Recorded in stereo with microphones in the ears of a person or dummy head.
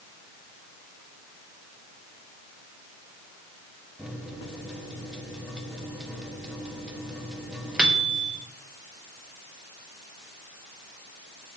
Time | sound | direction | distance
4.0 | a microwave | 5° right (ahead or behind) | 1.3 m